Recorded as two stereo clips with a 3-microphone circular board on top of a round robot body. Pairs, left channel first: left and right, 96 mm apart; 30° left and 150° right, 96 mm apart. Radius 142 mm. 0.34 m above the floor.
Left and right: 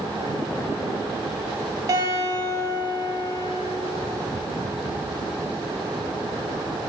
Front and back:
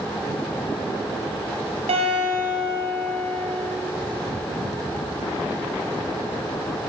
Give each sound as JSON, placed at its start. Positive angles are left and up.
{"t": 1.9, "sound": "a guitar", "azimuth_deg": -145, "distance_m": 2.5}